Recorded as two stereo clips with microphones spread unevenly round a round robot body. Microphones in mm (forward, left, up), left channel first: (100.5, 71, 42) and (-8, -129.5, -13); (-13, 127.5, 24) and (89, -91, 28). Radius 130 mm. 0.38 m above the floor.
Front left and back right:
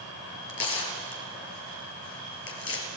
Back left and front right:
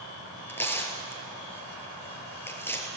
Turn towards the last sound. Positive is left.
turn(degrees=35)